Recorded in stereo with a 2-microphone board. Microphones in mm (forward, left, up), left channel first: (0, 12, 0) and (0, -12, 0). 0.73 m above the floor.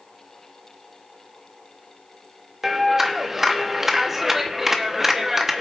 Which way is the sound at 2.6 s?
15° right (ahead or behind).